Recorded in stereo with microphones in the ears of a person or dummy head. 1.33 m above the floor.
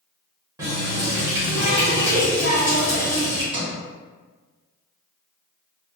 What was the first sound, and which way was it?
A running tap, 15° right (ahead or behind).